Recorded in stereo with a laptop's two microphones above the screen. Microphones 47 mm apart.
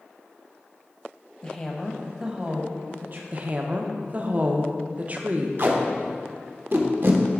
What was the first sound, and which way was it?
A woman speaking, 20° left (ahead or behind).